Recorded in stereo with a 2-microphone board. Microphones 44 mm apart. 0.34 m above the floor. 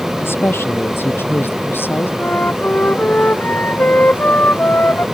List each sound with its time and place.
0.2 s a woman speaking: 60° left (ahead or behind); by 2.1 s 55° left (ahead or behind)
2.2 s a flute: 45° left (ahead or behind)